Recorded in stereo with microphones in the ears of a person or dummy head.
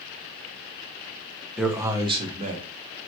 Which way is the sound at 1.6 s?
5° right (ahead or behind).